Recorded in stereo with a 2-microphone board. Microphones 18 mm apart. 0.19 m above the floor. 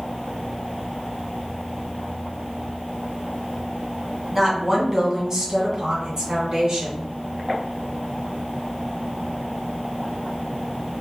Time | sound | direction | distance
4.3 | a woman speaking | 15° right (ahead or behind) | 1.4 m